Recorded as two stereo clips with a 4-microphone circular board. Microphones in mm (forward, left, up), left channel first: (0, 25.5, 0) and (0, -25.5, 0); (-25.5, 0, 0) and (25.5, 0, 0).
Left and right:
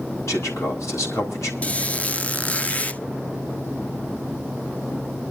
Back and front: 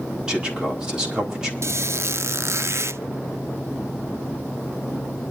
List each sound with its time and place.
0.3 s a man speaking: 75° left, 4 m
1.6 s a squeak: 25° left, 0.6 m